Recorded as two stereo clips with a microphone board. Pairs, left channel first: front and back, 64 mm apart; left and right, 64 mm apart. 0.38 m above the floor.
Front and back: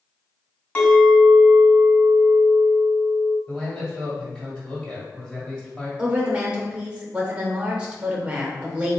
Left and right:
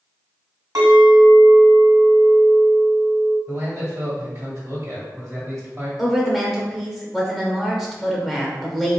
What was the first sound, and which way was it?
A clink, 70° right.